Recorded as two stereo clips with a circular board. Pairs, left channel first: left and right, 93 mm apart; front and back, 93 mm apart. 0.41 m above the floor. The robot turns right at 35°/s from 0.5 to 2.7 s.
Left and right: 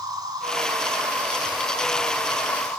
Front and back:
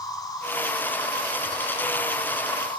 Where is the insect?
45° right, 6 m; by 2.8 s 30° left, 6 m.